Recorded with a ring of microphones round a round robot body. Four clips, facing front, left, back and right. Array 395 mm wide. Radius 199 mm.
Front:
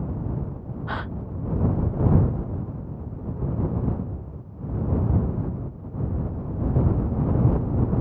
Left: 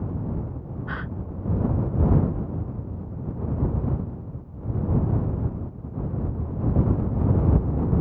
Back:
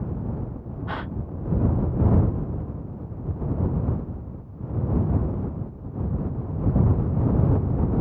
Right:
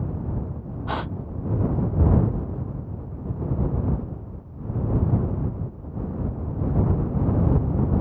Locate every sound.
0.9 s a gasp: 85° right